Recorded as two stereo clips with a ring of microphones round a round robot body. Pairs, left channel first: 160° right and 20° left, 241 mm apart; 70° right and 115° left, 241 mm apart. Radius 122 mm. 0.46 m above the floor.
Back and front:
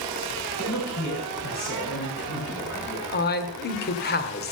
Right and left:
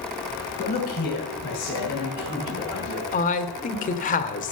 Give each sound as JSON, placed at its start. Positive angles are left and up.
{"t": 0.6, "sound": "a man speaking", "azimuth_deg": -125, "distance_m": 7.0}
{"t": 3.1, "sound": "a man speaking", "azimuth_deg": -120, "distance_m": 1.5}